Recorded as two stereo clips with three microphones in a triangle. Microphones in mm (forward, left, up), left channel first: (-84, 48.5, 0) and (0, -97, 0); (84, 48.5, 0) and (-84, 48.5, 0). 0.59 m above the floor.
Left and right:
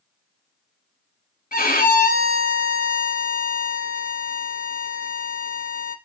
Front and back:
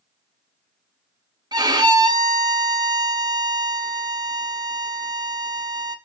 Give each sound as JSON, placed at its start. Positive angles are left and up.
{"t": 1.5, "sound": "a violin", "azimuth_deg": 115, "distance_m": 0.7}